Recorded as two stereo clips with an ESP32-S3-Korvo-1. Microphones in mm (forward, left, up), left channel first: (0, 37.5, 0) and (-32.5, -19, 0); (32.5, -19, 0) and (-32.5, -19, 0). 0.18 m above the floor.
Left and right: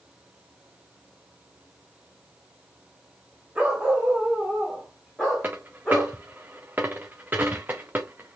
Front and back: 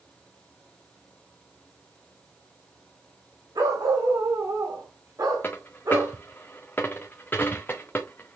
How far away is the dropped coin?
About 1.2 m.